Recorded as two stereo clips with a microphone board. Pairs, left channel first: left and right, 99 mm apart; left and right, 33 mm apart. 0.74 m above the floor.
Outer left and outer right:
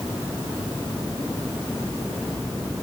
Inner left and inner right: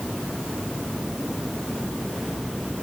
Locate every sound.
Only background noise.